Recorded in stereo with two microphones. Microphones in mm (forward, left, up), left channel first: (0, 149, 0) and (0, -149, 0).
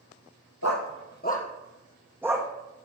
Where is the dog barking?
65° left (ahead or behind), 1.2 m; by 2.5 s 15° right (ahead or behind), 1.8 m.